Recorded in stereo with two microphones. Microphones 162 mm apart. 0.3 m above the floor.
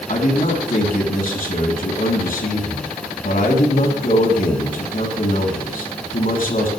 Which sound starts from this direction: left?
A man speaking, at 0.1 s.